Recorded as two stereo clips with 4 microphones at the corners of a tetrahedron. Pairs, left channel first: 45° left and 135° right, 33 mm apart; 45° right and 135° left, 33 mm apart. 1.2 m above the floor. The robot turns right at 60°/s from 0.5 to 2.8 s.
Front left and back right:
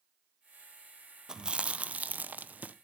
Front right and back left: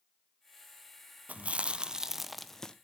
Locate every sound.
1.3 s chewing: 160° left, 0.7 m; by 2.8 s 110° right, 0.7 m